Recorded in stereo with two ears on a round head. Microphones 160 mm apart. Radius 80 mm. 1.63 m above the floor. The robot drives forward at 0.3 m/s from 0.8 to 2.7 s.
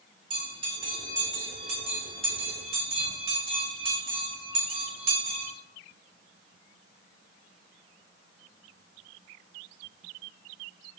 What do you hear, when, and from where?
0.3 s a bell: 25° right (ahead or behind), 1.4 m; by 5.5 s 35° right (ahead or behind), 1.2 m